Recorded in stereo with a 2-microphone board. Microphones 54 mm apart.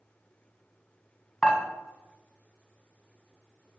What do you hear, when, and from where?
1.4 s dishes clattering: 20° left (ahead or behind), 1.3 m